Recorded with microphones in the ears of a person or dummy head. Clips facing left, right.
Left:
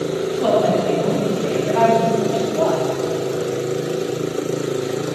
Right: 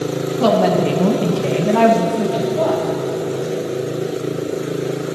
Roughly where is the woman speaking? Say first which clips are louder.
Right 3 dB; right.